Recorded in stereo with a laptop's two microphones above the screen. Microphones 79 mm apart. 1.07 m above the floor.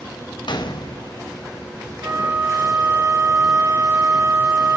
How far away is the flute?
About 1.5 m.